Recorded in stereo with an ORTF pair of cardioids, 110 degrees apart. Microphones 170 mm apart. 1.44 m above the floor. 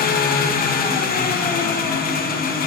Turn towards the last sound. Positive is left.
turn(degrees=55)